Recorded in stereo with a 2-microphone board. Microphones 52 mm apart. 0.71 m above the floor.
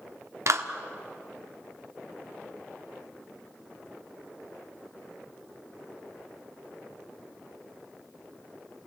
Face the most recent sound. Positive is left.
turn(degrees=-65)  # may be behind; listen again after turning